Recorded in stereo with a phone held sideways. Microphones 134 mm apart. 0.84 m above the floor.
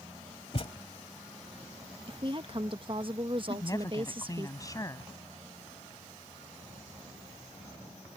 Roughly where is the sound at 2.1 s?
Right.